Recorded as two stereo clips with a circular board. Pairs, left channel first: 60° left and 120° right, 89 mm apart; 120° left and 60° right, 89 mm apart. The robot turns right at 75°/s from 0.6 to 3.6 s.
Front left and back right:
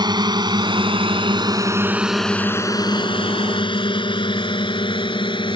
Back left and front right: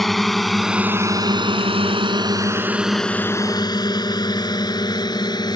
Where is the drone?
155° right; by 5.6 s 80° left.